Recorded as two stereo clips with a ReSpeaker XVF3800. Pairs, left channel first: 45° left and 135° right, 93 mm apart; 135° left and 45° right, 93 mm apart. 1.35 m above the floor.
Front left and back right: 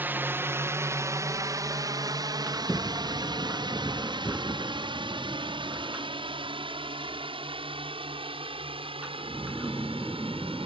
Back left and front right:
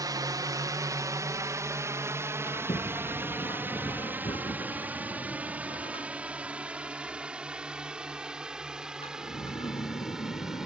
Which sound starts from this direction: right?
A drone, at 0.0 s.